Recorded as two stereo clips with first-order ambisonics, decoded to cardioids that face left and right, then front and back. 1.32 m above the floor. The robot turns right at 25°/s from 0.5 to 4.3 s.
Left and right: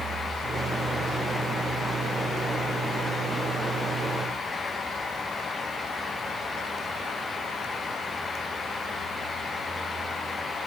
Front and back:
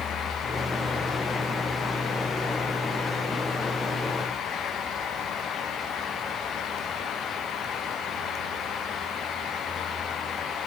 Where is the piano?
No piano in this recording.